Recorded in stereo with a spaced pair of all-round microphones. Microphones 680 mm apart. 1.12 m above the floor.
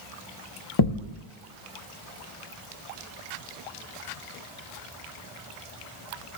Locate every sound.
0.8 s a thud: 35° left (ahead or behind), 0.7 m